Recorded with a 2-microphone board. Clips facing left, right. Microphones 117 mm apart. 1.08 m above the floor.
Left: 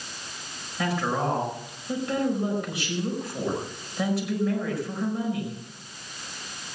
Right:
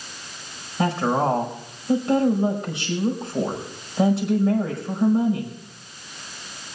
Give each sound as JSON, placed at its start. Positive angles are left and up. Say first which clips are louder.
{"t": 0.8, "sound": "a woman speaking", "louder": "right 5 dB", "side_deg": -30, "distance_m": 5.0}